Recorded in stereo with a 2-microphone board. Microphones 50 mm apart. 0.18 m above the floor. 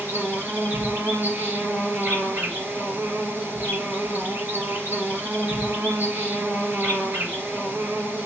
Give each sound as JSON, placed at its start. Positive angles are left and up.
{"t": 0.0, "sound": "an insect", "side_deg": -40, "distance_m": 2.5}